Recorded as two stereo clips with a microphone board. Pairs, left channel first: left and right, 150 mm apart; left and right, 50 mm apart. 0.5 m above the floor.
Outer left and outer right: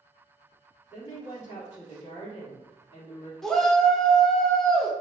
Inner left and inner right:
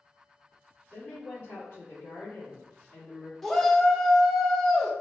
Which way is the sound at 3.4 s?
5° left (ahead or behind).